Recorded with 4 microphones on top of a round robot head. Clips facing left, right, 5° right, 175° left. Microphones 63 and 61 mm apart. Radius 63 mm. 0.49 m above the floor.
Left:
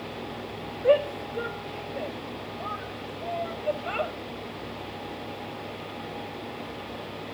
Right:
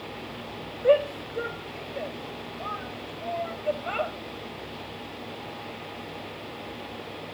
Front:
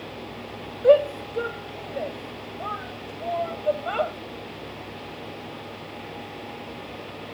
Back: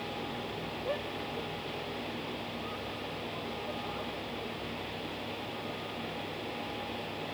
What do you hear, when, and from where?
0.8 s a shout: straight ahead